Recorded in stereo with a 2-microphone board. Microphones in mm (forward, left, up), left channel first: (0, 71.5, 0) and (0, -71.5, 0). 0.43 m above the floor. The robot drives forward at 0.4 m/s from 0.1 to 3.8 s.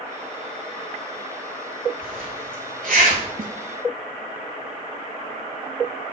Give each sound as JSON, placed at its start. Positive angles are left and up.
{"t": 2.0, "sound": "a zipper", "side_deg": -85, "distance_m": 5.5}
{"t": 3.4, "sound": "a snare drum", "side_deg": -75, "distance_m": 1.1}